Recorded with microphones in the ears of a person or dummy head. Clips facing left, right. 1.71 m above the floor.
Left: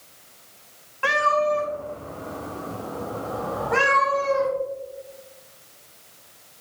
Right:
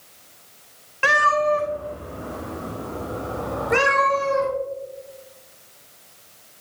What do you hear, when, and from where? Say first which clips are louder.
1.0 s a cat meowing: right 1 dB; 25° right (ahead or behind), 2.5 m